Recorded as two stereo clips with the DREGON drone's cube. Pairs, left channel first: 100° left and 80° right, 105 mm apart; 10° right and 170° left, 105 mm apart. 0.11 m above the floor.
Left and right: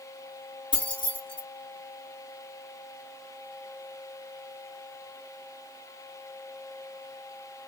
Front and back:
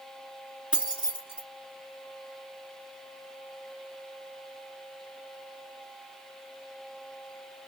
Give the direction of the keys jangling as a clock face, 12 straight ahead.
9 o'clock.